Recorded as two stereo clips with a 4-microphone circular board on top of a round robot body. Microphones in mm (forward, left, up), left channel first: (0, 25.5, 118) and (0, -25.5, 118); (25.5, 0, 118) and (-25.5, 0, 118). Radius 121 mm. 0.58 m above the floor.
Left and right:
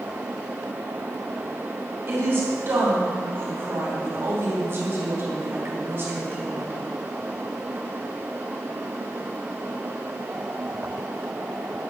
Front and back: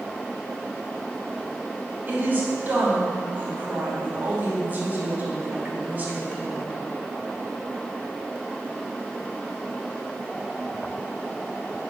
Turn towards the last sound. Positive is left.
turn(degrees=-125)